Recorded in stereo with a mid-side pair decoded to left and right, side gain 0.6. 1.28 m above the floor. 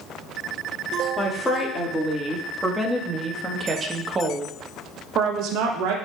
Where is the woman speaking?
10° left, 2.5 m; by 6.0 s 80° right, 1.2 m.